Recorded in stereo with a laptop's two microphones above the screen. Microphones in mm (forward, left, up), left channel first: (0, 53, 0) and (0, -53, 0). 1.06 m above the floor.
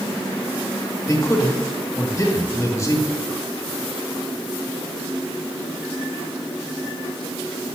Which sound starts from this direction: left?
A man speaking, at 1.1 s.